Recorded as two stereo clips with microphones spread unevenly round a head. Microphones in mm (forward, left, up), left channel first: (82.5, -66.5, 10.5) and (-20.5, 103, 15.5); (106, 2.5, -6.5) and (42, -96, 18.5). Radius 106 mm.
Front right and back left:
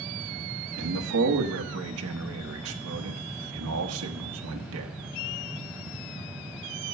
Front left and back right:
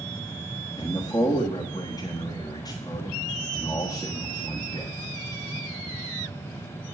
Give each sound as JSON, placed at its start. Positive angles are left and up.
{"t": 0.8, "sound": "a man speaking", "azimuth_deg": 125, "distance_m": 1.2}